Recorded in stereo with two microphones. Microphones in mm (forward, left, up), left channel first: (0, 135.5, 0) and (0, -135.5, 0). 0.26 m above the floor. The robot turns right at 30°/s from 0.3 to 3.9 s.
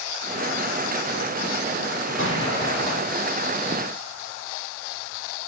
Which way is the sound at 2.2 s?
45° left (ahead or behind).